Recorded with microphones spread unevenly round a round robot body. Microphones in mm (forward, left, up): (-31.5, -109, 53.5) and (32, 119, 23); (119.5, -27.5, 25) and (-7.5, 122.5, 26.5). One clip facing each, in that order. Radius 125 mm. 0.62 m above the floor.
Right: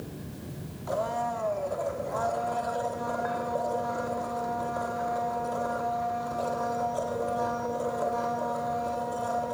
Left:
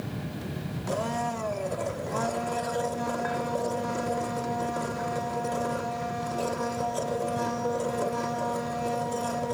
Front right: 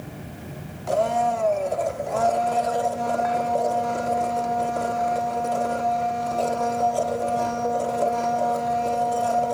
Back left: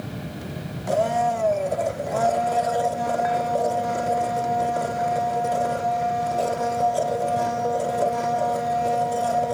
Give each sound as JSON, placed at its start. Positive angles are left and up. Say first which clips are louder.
{"t": 0.9, "sound": "a blender", "louder": "even, even", "azimuth_deg": 50, "distance_m": 1.3}